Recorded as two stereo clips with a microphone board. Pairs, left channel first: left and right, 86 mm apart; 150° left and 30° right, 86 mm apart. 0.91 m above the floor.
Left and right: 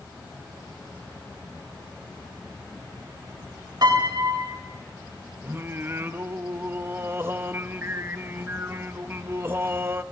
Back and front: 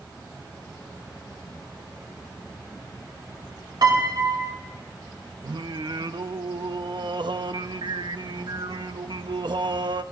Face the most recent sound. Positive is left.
turn(degrees=-30)